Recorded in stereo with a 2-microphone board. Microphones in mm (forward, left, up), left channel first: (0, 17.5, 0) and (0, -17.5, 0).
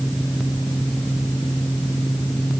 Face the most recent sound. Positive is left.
No sound to turn to.